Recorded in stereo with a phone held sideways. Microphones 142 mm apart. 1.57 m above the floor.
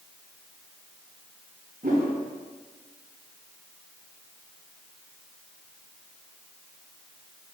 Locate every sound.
1.8 s a whoosh: 80° right, 3.5 m